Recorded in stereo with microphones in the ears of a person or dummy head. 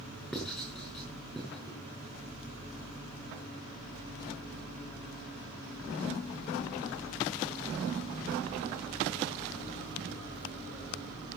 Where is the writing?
5° left (ahead or behind), 6 m.